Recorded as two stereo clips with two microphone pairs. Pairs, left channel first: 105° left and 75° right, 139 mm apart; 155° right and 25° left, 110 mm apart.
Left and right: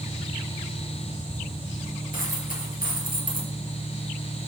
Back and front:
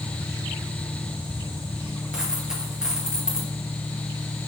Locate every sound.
2.1 s a dropped coin: 105° left, 4 m